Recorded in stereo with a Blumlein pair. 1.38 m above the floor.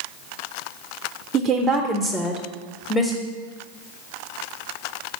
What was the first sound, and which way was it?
A woman speaking, 35° right.